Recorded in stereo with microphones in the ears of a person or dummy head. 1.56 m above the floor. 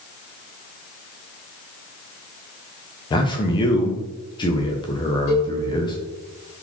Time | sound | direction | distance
3.1 | a man speaking | 25° left (ahead or behind) | 0.5 m
5.3 | a cowbell | 30° left (ahead or behind) | 1.3 m